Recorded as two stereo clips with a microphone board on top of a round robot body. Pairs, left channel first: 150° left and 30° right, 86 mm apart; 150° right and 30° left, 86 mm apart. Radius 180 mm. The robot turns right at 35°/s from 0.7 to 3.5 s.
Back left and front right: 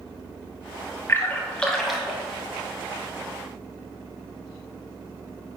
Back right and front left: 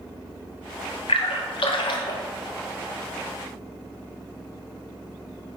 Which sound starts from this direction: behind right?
A splash, at 1.1 s.